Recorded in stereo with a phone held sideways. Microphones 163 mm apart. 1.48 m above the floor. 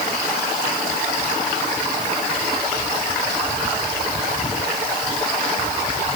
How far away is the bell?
I don't hear a bell.